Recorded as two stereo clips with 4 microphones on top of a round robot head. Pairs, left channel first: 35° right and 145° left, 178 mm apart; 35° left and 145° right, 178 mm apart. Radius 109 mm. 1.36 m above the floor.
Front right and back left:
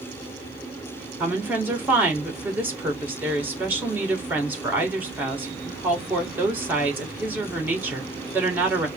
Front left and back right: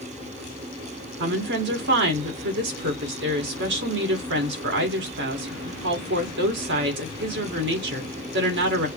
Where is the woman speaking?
135° right, 1.9 m.